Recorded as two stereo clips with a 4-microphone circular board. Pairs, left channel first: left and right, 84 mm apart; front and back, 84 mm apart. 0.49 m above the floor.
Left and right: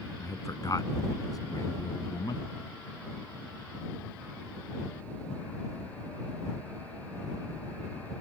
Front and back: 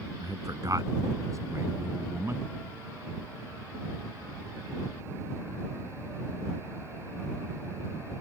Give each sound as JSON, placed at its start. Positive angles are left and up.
{"t": 0.2, "sound": "a man speaking", "azimuth_deg": 135}